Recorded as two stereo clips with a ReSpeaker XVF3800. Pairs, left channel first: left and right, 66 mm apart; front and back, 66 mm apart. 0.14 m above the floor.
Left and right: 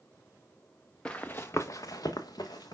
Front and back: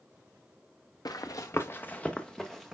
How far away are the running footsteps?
About 0.9 m.